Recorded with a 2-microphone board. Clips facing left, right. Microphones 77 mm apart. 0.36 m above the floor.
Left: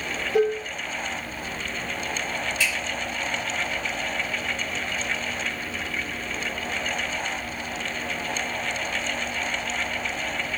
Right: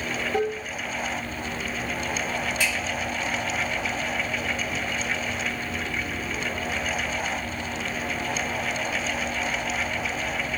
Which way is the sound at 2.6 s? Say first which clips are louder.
Left 1 dB; 55° right (ahead or behind).